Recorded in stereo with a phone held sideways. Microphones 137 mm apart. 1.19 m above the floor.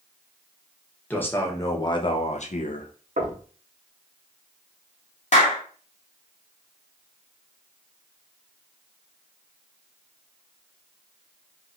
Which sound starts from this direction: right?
Knocking, at 3.2 s.